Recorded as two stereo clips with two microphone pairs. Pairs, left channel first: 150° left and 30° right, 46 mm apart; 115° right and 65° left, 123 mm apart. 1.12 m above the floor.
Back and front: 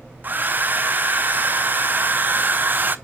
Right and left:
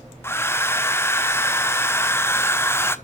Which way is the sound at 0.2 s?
55° right.